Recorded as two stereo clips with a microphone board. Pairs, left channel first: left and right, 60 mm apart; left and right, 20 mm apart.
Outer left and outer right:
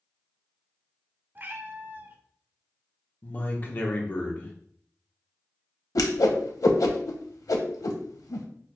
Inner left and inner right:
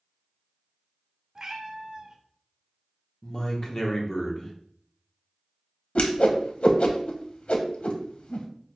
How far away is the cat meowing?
About 0.5 m.